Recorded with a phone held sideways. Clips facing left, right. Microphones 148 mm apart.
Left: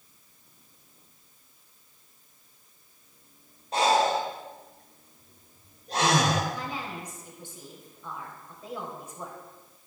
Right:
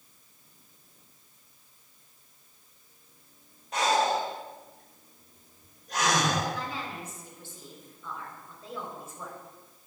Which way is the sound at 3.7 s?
30° left (ahead or behind).